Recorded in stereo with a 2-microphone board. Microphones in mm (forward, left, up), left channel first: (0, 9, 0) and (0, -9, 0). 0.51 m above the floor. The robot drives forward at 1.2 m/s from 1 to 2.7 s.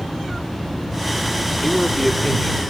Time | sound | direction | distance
1.6 | a man speaking | 20° left (ahead or behind) | 0.7 m